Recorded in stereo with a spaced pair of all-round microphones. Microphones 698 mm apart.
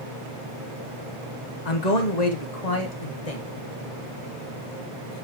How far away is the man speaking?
About 1.2 m.